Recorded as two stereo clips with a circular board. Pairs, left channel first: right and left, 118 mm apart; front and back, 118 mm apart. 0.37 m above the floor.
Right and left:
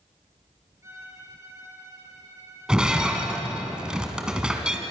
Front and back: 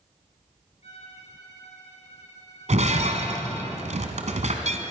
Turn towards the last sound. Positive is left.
turn(degrees=175)